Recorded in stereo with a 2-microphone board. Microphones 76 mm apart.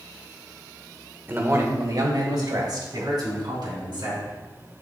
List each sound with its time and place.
1.3 s a man speaking: 25° right (ahead or behind), 0.9 m; by 4.3 s 80° right, 4 m